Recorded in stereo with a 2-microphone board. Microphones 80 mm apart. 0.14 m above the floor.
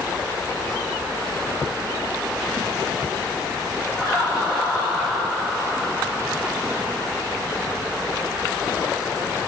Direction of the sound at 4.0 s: 30° right (ahead or behind).